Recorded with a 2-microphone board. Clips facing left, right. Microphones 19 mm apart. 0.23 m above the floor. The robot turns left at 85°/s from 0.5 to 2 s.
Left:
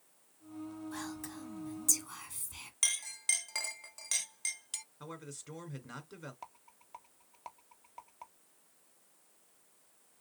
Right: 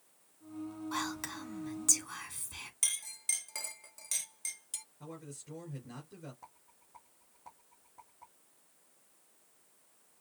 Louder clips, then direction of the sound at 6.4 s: Left 5 dB; 80° left.